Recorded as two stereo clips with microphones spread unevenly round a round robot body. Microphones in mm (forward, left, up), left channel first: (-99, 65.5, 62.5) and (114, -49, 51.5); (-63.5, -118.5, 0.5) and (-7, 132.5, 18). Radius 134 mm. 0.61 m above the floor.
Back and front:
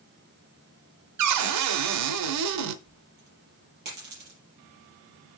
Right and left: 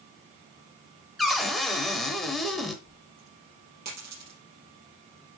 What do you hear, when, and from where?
1.2 s a cupboard door: 15° right, 1.0 m
2.9 s a dropped coin: 20° left, 4.5 m